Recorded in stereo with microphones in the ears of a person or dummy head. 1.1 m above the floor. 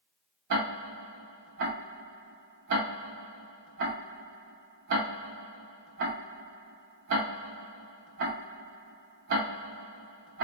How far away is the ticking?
About 0.8 m.